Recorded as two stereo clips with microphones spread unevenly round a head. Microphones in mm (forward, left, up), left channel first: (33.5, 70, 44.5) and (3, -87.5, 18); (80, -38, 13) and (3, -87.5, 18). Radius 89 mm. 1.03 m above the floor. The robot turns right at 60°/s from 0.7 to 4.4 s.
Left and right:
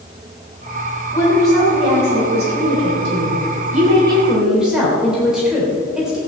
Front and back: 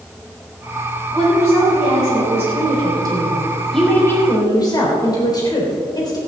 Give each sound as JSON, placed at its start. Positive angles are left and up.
{"t": 1.1, "sound": "a woman speaking", "azimuth_deg": 150, "distance_m": 3.5}